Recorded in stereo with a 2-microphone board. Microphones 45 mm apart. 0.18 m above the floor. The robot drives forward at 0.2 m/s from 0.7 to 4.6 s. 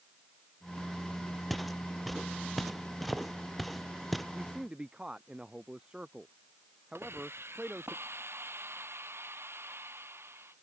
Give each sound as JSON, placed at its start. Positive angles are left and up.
{"t": 1.5, "sound": "footsteps", "side_deg": 0}
{"t": 4.3, "sound": "a man speaking", "side_deg": -25}
{"t": 7.0, "sound": "a hiss", "side_deg": -85}